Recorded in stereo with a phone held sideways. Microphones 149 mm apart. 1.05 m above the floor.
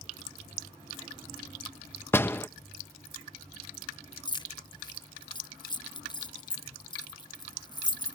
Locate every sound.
2.1 s a door slam: 15° left (ahead or behind)
4.2 s keys jangling: 30° left (ahead or behind)